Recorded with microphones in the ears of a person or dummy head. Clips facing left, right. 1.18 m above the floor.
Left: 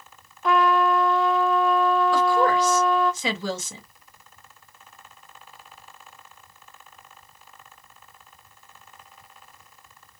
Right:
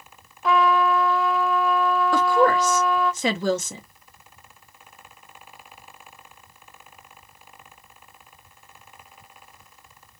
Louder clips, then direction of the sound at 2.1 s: Right 1 dB; 45° right (ahead or behind).